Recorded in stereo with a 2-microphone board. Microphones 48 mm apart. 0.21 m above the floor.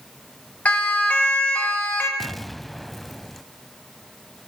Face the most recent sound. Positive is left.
turn(degrees=5)  # may be behind; listen again after turning